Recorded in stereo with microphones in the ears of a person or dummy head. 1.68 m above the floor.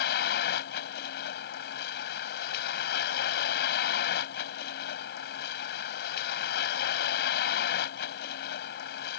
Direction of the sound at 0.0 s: 55° left (ahead or behind).